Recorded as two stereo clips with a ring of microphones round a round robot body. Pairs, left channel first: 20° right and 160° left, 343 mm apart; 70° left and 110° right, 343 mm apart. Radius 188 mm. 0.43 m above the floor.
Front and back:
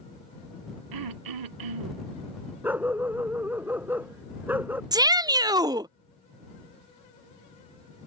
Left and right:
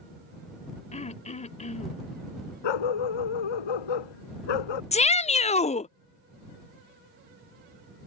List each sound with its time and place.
0.9 s throat clearing: 140° left
2.6 s a dog barking: 70° left
4.9 s a shout: 100° left